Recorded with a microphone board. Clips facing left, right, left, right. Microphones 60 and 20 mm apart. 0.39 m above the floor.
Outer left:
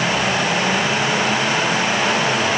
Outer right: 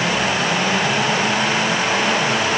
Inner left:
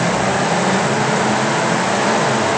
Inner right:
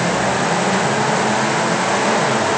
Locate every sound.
Only background noise.